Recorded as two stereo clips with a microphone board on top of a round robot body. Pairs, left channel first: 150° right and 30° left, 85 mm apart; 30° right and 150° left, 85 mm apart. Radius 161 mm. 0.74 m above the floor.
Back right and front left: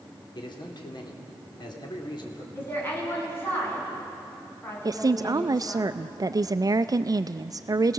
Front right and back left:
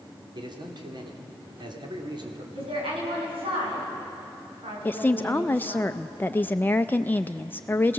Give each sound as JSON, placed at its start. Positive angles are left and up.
{"t": 0.3, "sound": "a man speaking", "azimuth_deg": 180, "distance_m": 3.0}
{"t": 2.5, "sound": "a woman speaking", "azimuth_deg": 145, "distance_m": 7.0}
{"t": 4.8, "sound": "a woman speaking", "azimuth_deg": 25, "distance_m": 0.6}